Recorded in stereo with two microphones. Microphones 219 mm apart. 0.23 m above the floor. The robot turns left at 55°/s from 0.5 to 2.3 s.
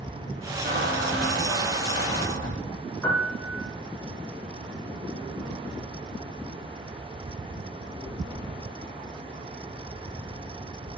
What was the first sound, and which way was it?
A squeak, 50° right.